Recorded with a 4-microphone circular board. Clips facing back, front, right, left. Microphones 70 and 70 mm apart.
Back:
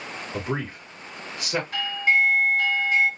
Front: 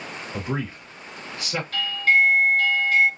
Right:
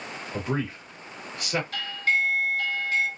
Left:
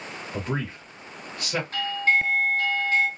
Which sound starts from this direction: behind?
A man speaking, at 0.3 s.